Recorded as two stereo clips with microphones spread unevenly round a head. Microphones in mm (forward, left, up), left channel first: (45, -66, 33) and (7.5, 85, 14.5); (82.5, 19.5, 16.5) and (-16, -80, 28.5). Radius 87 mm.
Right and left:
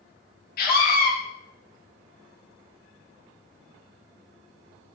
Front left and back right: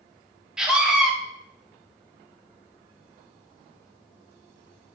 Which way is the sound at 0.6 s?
50° right.